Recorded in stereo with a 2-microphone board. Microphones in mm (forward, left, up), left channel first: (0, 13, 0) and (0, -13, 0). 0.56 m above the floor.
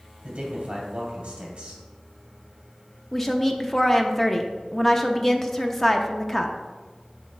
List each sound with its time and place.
0.2 s a man speaking: 45° right (ahead or behind), 2 m
3.1 s a woman speaking: 15° left (ahead or behind), 0.6 m